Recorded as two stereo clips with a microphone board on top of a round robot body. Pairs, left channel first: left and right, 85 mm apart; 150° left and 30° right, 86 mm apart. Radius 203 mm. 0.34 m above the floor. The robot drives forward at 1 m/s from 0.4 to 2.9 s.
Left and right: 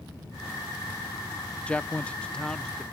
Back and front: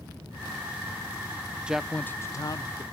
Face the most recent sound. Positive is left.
turn(degrees=170)